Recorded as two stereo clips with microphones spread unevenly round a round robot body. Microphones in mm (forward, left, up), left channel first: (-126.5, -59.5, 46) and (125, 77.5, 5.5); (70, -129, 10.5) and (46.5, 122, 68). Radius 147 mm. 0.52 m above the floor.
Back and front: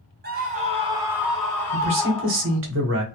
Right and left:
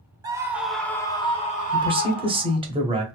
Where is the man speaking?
20° left, 1.0 m.